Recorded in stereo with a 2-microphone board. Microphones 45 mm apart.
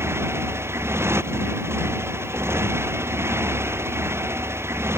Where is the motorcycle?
65° right (ahead or behind).